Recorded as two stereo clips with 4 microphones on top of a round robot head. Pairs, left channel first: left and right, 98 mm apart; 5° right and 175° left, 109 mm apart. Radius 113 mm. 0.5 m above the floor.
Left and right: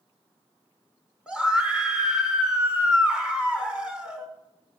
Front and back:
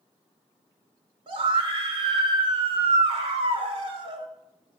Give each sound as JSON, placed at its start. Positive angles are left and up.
{"t": 1.3, "sound": "a scream", "azimuth_deg": -170, "distance_m": 1.9}